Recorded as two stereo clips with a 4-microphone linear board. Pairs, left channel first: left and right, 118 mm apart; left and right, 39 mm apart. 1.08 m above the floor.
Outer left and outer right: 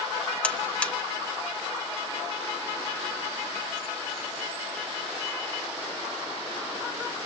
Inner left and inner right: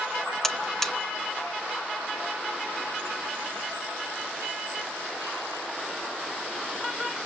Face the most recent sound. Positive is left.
turn(degrees=10)  # may be behind; listen again after turning